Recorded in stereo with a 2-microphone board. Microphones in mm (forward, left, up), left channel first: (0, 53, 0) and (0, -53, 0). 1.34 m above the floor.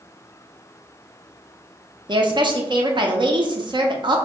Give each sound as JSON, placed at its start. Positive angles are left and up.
{"t": 2.1, "sound": "a woman speaking", "side_deg": -45, "distance_m": 0.6}